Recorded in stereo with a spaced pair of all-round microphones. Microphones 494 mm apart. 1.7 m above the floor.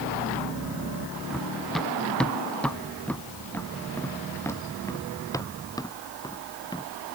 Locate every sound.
1.3 s running footsteps: centre (ahead or behind); by 6.9 s 10° left (ahead or behind)